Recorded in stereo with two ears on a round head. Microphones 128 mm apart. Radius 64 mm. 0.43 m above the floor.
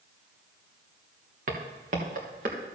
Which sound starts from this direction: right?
Footsteps, at 1.5 s.